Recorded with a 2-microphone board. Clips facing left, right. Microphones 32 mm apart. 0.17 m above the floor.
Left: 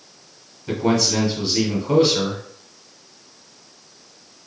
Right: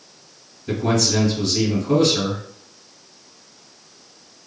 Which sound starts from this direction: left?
A man speaking, at 0.7 s.